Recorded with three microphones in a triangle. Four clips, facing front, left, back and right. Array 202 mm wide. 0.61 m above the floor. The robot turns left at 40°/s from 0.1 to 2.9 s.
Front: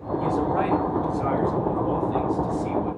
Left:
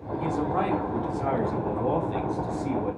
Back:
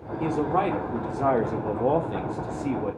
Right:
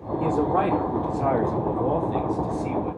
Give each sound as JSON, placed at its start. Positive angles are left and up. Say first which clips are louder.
{"t": 0.2, "sound": "a man speaking", "louder": "right 5 dB, even", "azimuth_deg": -100, "distance_m": 1.6}